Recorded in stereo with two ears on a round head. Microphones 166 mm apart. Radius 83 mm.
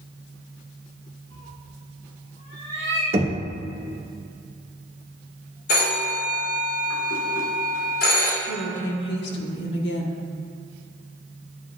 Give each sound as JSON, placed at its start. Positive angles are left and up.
{"t": 1.3, "sound": "a cat meowing", "side_deg": 35, "distance_m": 3.5}
{"t": 3.1, "sound": "knocking", "side_deg": -30, "distance_m": 1.2}
{"t": 5.7, "sound": "a phone ringing", "side_deg": 85, "distance_m": 3.5}
{"t": 8.4, "sound": "a woman speaking", "side_deg": 60, "distance_m": 1.4}